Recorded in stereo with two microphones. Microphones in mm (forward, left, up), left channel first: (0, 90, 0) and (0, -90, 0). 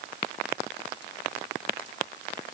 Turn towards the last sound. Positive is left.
No sound to turn to.